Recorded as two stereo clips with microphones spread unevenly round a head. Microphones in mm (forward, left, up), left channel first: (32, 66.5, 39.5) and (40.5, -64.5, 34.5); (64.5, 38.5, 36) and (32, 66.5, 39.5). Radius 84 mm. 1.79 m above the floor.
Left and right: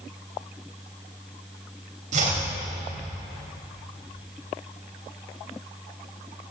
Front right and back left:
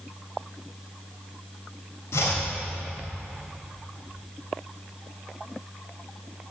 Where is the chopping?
65° right, 3.5 m.